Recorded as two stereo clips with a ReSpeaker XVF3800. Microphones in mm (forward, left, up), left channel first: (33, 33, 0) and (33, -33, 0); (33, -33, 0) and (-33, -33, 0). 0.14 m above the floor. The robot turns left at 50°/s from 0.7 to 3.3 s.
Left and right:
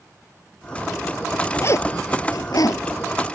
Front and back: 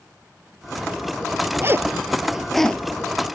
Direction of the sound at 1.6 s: 135° left.